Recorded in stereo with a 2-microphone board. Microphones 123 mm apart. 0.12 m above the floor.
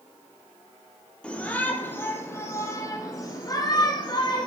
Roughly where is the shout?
Centre.